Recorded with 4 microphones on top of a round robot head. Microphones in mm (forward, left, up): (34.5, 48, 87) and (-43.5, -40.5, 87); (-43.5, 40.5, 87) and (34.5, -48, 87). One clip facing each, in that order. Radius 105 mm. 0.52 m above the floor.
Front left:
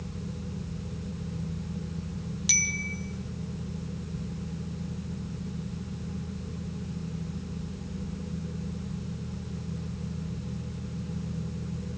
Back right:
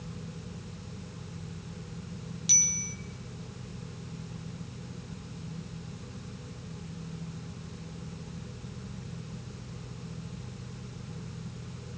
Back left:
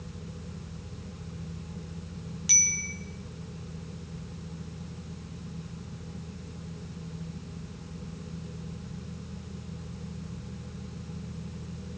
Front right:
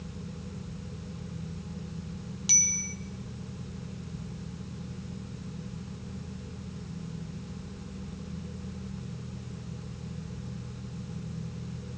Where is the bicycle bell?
20° left, 3.5 m.